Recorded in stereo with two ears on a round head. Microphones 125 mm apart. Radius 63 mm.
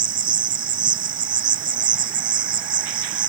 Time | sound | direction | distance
0.0 | an insect | 35° right (ahead or behind) | ?